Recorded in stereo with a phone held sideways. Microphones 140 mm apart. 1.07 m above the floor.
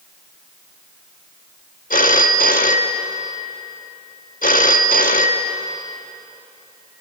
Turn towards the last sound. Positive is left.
turn(degrees=70)  # may be behind; listen again after turning